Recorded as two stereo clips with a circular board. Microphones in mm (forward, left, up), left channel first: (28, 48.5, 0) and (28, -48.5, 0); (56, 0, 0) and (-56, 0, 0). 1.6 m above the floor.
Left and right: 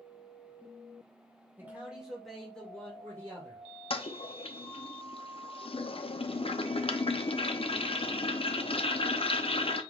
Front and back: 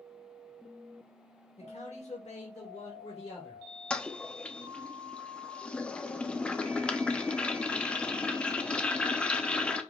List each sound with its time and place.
1.6 s a man speaking: 20° right, 1.8 m; by 3.6 s 30° left, 2.5 m
3.9 s a toilet flushing: 80° left, 0.6 m